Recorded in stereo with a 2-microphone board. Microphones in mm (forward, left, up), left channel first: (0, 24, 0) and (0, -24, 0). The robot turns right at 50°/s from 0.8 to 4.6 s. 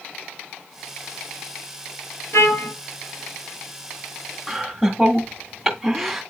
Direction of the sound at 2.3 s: 80° left.